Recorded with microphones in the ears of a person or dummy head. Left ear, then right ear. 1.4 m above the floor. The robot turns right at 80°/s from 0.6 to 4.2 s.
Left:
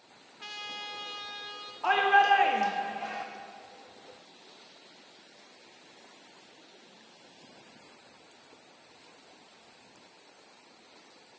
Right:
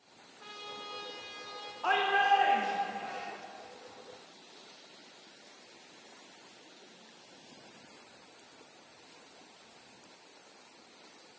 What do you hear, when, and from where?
0.4 s a trumpet: 90° left, 0.7 m; by 1.7 s straight behind, 0.7 m
1.8 s a shout: 10° left, 0.6 m; by 3.2 s 125° left, 0.6 m